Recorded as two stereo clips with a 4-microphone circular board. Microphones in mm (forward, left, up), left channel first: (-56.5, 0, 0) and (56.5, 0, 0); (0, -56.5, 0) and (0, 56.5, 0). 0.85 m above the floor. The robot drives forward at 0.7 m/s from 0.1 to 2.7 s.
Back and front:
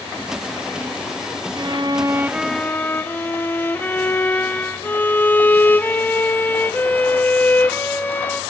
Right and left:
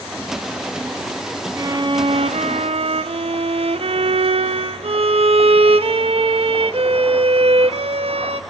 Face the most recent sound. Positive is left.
turn(degrees=110)